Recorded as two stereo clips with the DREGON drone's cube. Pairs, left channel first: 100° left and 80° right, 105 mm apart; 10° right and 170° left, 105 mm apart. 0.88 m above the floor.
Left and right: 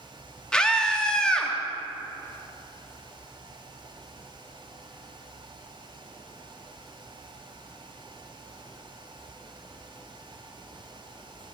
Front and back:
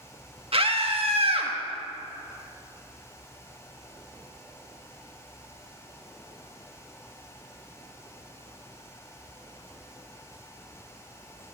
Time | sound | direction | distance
0.5 | a scream | straight behind | 1.5 m